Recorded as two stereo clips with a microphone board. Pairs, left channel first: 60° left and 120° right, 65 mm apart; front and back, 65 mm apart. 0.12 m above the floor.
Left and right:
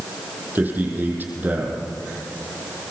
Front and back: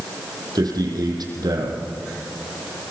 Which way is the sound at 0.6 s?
Straight behind.